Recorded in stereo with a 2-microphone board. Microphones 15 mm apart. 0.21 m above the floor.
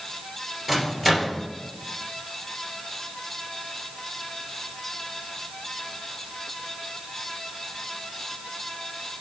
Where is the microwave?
20° right (ahead or behind), 2.5 m.